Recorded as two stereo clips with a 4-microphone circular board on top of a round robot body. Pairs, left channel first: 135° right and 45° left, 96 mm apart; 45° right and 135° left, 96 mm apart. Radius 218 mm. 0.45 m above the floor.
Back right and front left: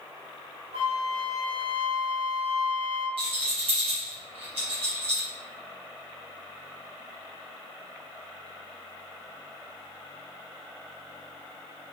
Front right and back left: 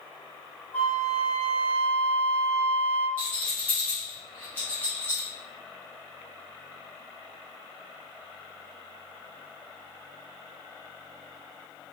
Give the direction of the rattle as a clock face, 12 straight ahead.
11 o'clock.